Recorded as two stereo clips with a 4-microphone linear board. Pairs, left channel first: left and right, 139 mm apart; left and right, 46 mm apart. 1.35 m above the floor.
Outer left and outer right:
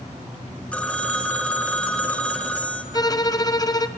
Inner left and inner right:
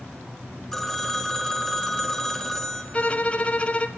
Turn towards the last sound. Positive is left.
turn(degrees=25)  # may be behind; listen again after turning